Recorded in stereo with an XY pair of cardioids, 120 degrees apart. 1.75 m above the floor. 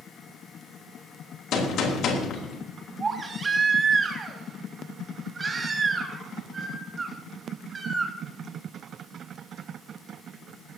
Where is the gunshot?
65° left, 3.5 m.